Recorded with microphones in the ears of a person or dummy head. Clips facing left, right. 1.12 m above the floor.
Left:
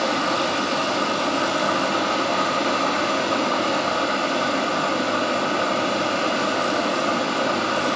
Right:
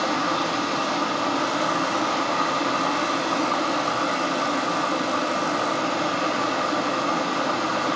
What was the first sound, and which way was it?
Running water, 20° left (ahead or behind).